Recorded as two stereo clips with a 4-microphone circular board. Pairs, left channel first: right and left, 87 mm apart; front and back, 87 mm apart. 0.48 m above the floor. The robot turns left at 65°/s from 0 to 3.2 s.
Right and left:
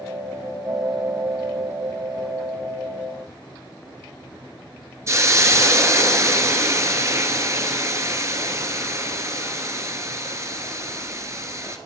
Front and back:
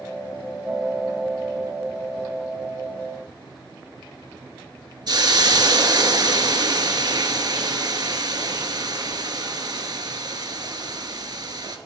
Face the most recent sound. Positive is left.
turn(degrees=145)